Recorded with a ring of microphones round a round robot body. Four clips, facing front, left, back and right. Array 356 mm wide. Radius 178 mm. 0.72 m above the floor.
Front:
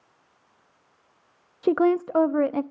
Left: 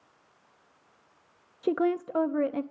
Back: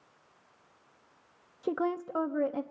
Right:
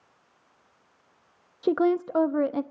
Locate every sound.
1.6 s a woman speaking: 15° right, 0.5 m